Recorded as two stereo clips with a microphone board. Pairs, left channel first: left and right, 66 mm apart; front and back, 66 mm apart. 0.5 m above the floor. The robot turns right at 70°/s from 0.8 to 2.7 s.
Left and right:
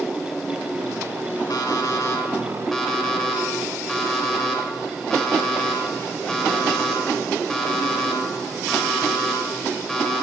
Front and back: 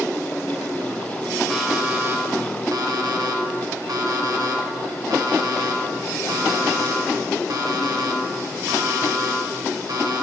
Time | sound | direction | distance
1.5 | an alarm clock | 90° left | 1.1 m